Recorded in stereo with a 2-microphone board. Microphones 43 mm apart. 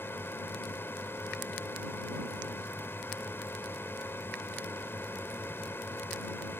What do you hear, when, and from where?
0.0 s a drone: 60° left (ahead or behind)